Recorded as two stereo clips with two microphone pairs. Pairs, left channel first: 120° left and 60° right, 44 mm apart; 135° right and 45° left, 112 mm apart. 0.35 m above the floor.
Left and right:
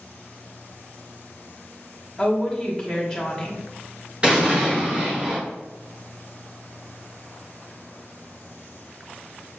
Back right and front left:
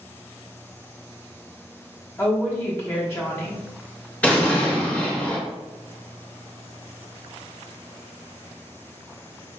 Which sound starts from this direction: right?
An explosion, at 4.2 s.